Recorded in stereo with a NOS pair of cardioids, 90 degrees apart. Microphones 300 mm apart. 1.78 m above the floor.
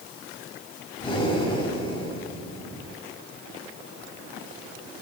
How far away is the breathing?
About 5 m.